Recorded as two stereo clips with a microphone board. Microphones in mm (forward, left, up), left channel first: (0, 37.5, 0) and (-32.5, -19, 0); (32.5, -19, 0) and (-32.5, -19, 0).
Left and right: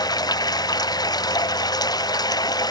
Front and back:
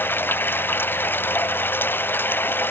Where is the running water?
60° left.